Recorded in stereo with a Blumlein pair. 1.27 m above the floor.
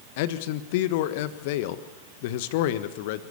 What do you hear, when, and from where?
0.2 s a man speaking: 50° left, 1.5 m